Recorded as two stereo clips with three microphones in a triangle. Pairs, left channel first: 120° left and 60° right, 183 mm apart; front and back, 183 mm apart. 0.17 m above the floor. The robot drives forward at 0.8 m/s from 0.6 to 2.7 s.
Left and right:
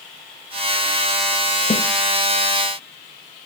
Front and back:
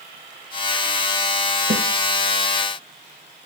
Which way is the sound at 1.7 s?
175° left.